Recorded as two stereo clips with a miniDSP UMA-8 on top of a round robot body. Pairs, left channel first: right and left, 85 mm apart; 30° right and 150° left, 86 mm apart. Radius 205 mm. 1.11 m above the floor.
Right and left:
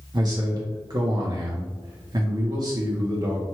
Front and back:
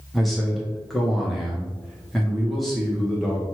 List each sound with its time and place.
0.1 s a man speaking: 60° left, 1.0 m